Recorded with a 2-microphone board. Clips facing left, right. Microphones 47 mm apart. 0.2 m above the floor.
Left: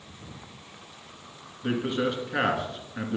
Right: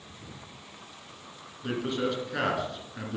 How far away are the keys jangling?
No keys jangling in this recording.